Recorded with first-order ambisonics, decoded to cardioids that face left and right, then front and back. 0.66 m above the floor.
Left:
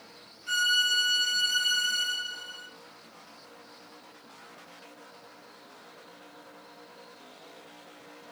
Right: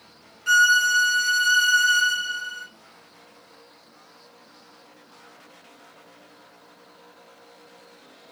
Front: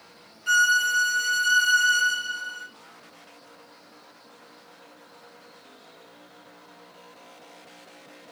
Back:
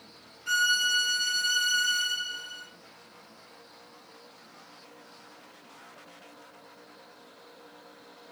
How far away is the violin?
About 0.7 m.